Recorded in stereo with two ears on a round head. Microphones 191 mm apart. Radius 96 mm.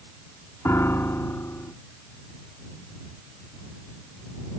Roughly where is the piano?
Centre.